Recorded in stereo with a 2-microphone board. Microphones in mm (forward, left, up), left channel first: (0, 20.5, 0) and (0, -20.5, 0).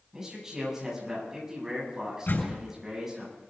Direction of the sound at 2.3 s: 60° left (ahead or behind).